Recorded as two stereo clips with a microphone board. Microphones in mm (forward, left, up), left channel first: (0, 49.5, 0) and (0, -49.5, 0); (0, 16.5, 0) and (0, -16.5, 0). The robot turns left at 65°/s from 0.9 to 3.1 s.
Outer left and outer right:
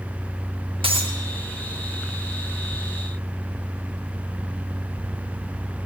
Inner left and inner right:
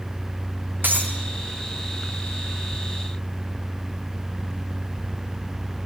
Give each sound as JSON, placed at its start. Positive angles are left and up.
{"t": 0.8, "sound": "breaking glass", "side_deg": -75, "distance_m": 3.5}